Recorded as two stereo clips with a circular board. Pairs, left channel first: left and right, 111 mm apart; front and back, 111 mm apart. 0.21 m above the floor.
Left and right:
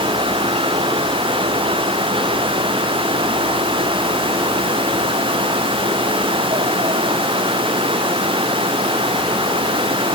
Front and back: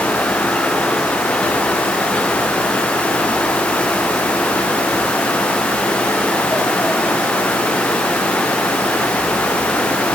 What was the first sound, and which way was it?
Only background noise.